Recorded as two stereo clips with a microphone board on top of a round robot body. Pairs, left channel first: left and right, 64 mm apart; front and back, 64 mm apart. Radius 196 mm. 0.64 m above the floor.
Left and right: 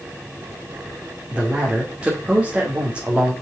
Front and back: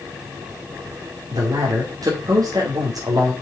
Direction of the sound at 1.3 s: 165° right.